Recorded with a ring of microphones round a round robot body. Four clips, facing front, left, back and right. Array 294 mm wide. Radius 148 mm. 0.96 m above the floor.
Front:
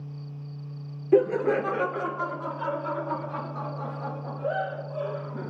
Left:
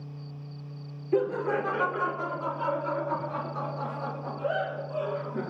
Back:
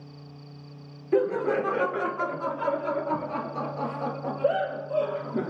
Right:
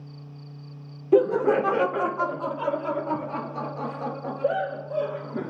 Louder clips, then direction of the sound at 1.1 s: Right 7 dB, front 3 dB; 55° right.